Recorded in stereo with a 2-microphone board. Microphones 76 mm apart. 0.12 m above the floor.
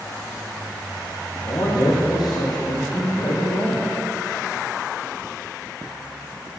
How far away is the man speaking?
About 5 m.